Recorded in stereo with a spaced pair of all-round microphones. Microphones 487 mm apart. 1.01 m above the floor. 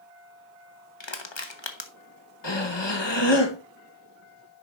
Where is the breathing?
60° left (ahead or behind), 1.2 m.